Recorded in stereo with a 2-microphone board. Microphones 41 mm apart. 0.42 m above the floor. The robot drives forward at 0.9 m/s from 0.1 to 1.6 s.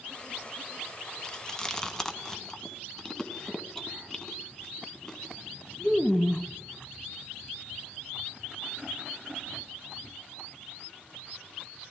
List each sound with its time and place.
1.2 s chewing: 20° left (ahead or behind), 0.7 m; by 6.5 s 15° left (ahead or behind), 1.0 m